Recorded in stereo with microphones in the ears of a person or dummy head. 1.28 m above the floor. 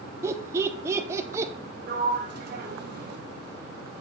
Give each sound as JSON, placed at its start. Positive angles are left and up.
{"t": 0.2, "sound": "laughter", "side_deg": -15, "distance_m": 0.9}
{"t": 1.9, "sound": "a sliding door", "side_deg": -55, "distance_m": 1.1}